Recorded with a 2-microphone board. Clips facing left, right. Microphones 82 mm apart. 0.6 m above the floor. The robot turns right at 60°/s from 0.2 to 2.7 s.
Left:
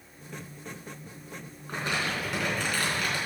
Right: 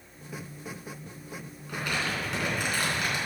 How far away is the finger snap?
No finger snap in this recording.